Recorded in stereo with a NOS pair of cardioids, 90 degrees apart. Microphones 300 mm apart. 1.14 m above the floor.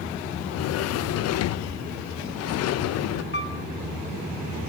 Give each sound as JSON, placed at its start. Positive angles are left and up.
{"t": 0.4, "sound": "a sliding door", "azimuth_deg": 60, "distance_m": 0.5}
{"t": 3.3, "sound": "a piano", "azimuth_deg": 35, "distance_m": 1.6}